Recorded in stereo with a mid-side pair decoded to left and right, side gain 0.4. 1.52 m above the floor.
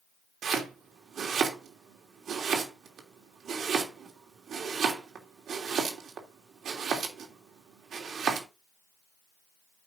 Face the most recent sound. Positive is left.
turn(degrees=-65)